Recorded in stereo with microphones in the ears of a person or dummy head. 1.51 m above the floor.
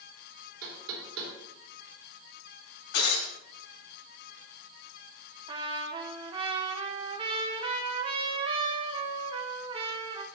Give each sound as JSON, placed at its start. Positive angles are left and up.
{"t": 0.6, "sound": "knocking", "side_deg": -80, "distance_m": 3.0}
{"t": 2.9, "sound": "breaking glass", "side_deg": 70, "distance_m": 4.5}
{"t": 5.5, "sound": "a trumpet", "side_deg": -30, "distance_m": 0.9}